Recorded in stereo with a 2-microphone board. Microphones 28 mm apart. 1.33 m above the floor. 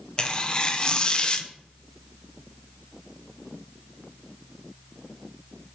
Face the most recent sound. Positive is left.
turn(degrees=30)  # may be behind; listen again after turning